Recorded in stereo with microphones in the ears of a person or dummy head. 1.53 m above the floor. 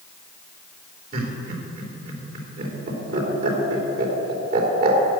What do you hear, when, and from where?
1.1 s laughter: 55° right (ahead or behind), 3.5 m